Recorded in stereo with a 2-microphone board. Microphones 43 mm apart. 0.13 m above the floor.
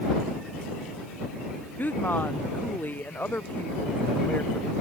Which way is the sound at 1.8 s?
45° left (ahead or behind).